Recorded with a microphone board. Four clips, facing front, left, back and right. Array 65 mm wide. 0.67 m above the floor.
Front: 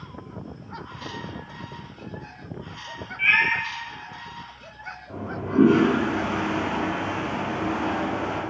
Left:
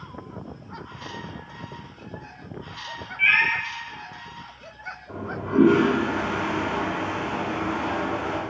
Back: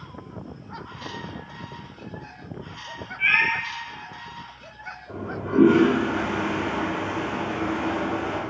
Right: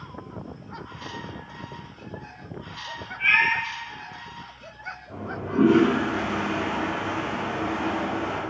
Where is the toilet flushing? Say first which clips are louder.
Left 4 dB, back 2 dB; 105° left, 1.3 m.